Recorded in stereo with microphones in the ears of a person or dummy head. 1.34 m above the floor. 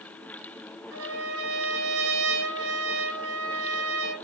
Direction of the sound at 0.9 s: 60° right (ahead or behind).